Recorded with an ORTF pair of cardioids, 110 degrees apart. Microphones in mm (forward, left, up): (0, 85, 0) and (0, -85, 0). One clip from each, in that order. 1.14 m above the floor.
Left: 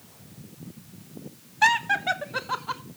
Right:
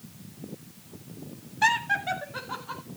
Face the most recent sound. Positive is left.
turn(degrees=50)